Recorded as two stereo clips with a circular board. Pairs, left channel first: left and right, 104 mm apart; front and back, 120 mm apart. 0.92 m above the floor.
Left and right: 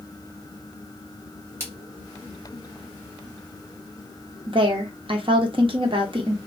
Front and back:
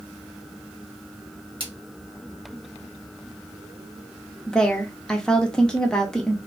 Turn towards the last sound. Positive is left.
turn(degrees=-85)